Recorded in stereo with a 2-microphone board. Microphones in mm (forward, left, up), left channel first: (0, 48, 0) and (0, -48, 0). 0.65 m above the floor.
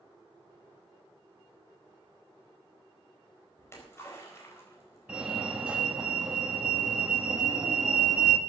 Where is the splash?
25° left (ahead or behind), 4.5 m.